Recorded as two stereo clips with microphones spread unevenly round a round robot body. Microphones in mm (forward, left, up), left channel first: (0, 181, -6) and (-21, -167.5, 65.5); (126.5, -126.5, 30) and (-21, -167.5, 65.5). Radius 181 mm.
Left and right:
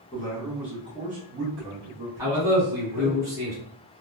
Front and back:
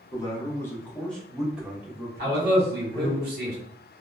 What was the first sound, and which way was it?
A man speaking, 40° left.